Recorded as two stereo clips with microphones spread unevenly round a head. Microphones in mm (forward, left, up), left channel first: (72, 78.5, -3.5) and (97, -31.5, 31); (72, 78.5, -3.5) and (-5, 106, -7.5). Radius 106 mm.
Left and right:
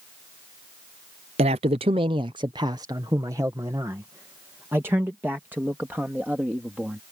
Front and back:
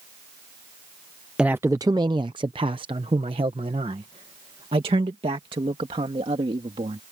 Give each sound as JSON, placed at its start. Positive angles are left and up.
{"t": 1.4, "sound": "a man speaking", "azimuth_deg": -115}